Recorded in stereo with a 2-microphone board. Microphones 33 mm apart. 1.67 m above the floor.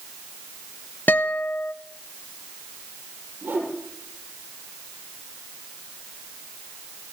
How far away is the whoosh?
About 8.5 m.